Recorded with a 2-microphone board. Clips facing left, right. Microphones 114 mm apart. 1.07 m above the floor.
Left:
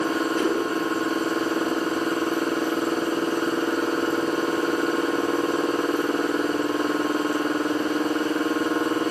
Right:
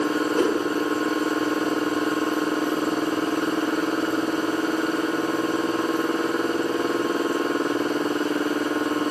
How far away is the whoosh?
About 5 m.